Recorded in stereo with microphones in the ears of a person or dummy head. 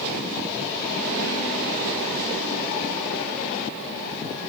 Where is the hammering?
No hammering in this recording.